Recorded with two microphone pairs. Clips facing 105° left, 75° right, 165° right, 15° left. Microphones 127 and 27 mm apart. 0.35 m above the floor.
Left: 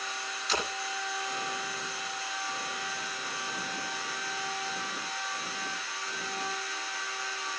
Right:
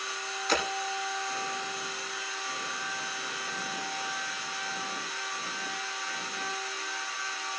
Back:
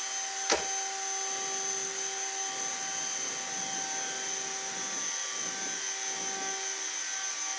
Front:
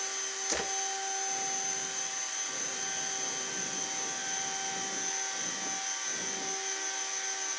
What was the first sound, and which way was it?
Breaking glass, 120° right.